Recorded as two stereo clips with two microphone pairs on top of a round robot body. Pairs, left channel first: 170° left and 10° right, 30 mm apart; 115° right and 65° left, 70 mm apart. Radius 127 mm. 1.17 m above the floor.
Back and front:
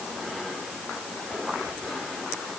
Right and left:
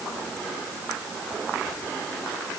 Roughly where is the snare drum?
I don't hear a snare drum.